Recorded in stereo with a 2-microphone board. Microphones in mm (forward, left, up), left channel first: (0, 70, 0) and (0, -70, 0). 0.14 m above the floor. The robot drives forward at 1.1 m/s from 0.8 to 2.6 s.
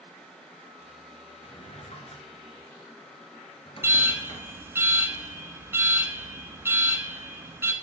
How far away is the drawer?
About 1.2 m.